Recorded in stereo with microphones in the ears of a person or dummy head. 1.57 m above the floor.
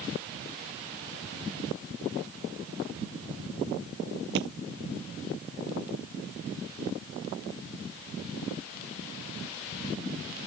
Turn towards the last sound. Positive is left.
turn(degrees=-65)  # may be behind; listen again after turning